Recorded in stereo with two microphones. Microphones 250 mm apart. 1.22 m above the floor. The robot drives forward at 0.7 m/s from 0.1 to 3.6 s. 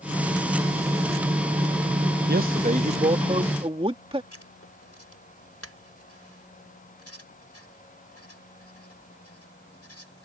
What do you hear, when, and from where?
2.3 s a man speaking: 40° right (ahead or behind); by 4.2 s 20° right (ahead or behind)
4.3 s writing: 70° left (ahead or behind)